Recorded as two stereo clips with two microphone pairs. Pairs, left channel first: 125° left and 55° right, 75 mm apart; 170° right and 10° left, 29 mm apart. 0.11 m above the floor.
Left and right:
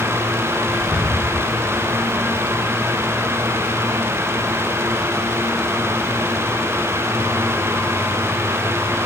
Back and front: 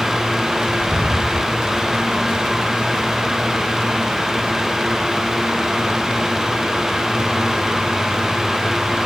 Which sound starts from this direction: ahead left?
Whispering, at 0.7 s.